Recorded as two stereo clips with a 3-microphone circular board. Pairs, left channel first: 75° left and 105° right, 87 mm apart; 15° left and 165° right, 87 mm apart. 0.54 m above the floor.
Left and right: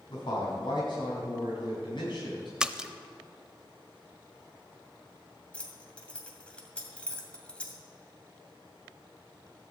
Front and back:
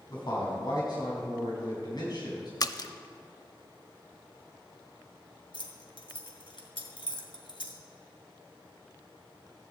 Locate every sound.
0.1 s a man speaking: 50° left, 5 m
2.6 s a splash: 25° right, 0.6 m
5.5 s keys jangling: straight ahead, 1.9 m